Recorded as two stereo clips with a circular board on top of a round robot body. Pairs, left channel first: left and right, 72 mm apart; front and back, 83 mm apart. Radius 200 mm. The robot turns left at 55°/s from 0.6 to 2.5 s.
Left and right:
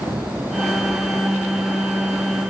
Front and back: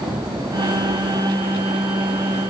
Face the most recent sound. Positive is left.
No sound to turn to.